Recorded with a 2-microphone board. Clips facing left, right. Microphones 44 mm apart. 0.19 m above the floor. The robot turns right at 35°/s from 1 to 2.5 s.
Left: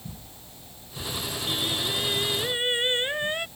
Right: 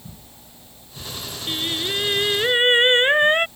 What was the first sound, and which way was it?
Singing, 145° right.